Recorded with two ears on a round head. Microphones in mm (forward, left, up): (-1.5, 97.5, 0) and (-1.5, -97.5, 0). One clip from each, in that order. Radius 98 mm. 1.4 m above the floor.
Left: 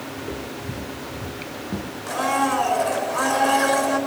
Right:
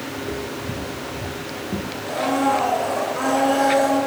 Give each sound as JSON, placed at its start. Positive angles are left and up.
{"t": 0.2, "sound": "footsteps", "side_deg": 45, "distance_m": 3.0}
{"t": 2.1, "sound": "a blender", "side_deg": 50, "distance_m": 6.5}